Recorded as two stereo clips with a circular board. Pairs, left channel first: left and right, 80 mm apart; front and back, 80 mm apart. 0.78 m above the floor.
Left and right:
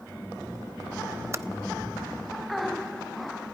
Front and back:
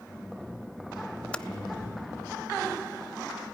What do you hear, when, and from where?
1.3 s typing on a keyboard: 70° right, 0.5 m